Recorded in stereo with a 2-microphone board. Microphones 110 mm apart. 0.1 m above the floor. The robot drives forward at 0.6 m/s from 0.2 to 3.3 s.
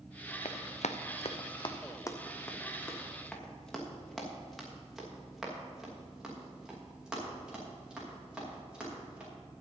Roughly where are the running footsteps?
Left.